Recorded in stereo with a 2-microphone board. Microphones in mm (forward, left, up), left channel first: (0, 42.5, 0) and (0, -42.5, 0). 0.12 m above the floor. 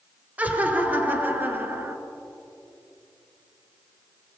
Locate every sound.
0.4 s laughter: 20° right (ahead or behind), 2 m; by 2.0 s 30° right (ahead or behind), 1.7 m